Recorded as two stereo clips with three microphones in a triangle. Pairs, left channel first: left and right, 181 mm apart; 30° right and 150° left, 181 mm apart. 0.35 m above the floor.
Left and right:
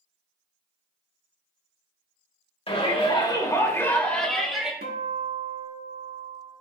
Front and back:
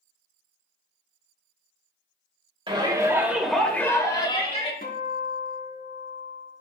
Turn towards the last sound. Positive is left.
turn(degrees=-65)